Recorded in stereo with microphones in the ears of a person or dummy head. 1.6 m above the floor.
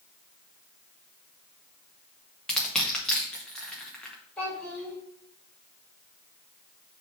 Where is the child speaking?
10° left (ahead or behind), 3.5 m.